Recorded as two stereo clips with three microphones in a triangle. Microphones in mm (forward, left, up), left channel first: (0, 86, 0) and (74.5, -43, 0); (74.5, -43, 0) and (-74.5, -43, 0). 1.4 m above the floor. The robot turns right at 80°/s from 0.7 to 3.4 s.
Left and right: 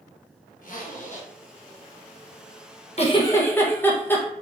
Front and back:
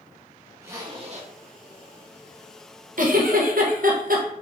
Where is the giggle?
160° left, 0.9 m; by 4.2 s 165° right, 0.9 m.